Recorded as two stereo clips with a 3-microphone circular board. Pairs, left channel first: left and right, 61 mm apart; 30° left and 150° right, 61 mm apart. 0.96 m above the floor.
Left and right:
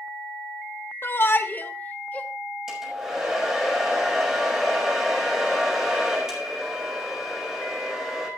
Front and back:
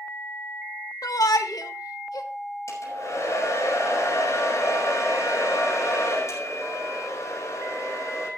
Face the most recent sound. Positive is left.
turn(degrees=-10)